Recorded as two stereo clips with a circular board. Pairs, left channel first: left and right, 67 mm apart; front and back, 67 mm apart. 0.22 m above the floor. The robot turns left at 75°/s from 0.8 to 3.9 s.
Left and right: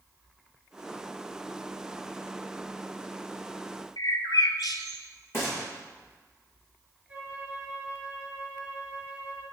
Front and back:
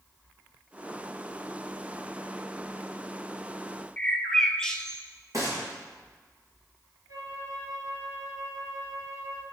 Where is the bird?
80° left, 0.7 m.